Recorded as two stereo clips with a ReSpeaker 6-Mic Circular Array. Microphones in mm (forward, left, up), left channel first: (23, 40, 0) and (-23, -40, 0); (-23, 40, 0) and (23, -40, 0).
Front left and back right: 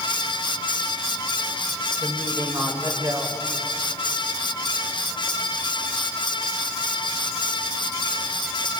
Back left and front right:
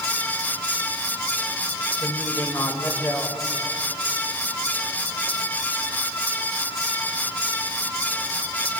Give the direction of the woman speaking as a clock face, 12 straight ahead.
6 o'clock.